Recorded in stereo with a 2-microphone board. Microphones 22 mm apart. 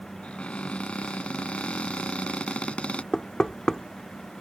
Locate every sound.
0.2 s a cupboard door: 60° left (ahead or behind)
3.1 s knocking: 30° left (ahead or behind)